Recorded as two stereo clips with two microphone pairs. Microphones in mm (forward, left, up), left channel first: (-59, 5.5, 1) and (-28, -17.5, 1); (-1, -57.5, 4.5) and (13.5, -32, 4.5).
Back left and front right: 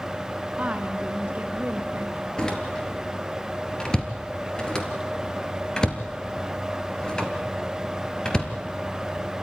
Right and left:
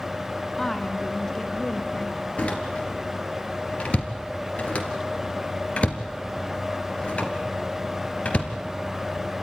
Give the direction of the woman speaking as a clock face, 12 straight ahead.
2 o'clock.